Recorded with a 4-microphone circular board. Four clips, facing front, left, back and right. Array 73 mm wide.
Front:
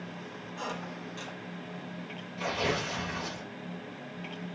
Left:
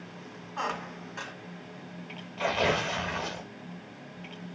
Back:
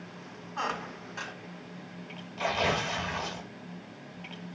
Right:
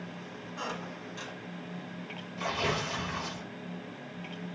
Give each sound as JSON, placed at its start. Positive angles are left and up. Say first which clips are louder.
{"t": 0.6, "sound": "a squeak", "louder": "left 5 dB, back 5 dB", "azimuth_deg": 125, "distance_m": 1.0}
{"t": 2.4, "sound": "tearing paper", "louder": "left 5 dB, back 3 dB", "azimuth_deg": 105, "distance_m": 1.3}